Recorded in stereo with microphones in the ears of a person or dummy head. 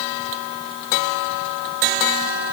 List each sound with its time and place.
Only background noise.